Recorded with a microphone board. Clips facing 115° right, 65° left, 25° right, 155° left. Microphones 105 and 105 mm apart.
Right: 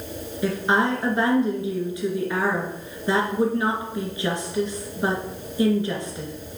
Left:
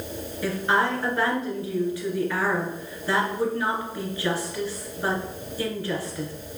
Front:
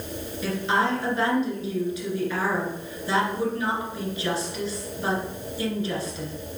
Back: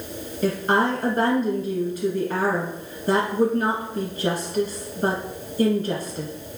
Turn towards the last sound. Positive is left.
turn(degrees=180)